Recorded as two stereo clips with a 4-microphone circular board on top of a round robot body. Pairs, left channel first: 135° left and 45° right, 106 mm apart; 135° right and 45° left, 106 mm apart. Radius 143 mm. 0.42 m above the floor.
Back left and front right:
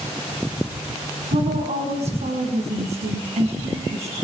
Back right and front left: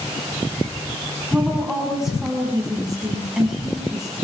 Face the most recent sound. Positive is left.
turn(degrees=-40)